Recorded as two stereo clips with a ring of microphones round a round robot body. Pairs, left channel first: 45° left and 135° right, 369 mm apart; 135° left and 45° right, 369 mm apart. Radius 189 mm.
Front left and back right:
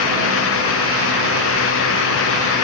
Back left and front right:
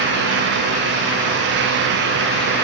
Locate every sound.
Only background noise.